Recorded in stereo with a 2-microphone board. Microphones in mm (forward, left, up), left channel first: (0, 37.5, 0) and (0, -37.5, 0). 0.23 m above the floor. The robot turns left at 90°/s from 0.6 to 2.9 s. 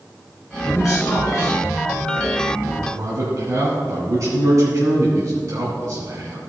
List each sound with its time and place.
0.6 s a man speaking: 35° left (ahead or behind), 2 m; by 6.4 s 50° right (ahead or behind), 2 m